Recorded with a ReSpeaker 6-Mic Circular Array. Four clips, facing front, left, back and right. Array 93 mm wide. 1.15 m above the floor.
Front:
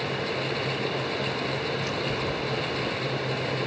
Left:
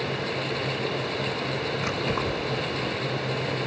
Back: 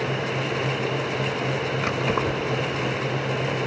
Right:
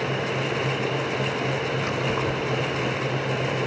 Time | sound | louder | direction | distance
1.8 | keys jangling | right 2 dB, back 5 dB | 175° left | 3.5 m